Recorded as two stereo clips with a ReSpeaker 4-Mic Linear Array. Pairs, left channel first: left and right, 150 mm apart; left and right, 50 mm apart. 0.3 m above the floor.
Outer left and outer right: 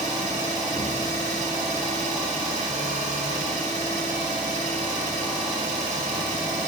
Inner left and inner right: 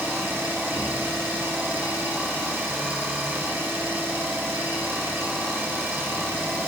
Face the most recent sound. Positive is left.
turn(degrees=-55)  # may be behind; listen again after turning